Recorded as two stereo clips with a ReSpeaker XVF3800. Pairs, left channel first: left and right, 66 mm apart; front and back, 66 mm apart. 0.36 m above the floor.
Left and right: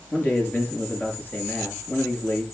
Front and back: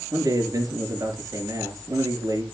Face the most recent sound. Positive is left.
turn(degrees=150)